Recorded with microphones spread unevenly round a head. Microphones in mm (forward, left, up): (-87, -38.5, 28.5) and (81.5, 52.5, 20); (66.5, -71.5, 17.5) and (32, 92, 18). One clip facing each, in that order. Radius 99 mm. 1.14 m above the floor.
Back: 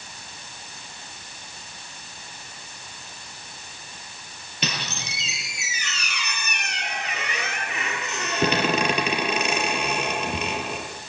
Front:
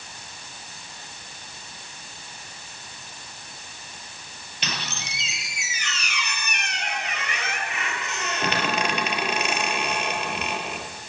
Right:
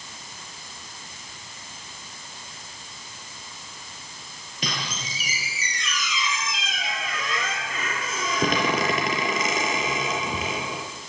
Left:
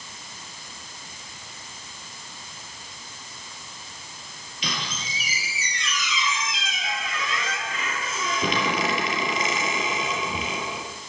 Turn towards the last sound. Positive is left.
turn(degrees=-135)